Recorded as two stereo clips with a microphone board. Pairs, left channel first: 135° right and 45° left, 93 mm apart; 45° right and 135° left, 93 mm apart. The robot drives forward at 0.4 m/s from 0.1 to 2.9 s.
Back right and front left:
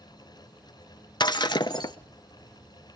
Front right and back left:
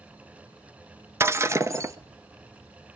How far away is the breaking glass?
About 0.6 m.